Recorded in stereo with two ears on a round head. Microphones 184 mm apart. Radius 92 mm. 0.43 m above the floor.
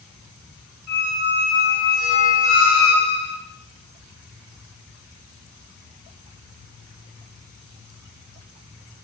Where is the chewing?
No chewing in this recording.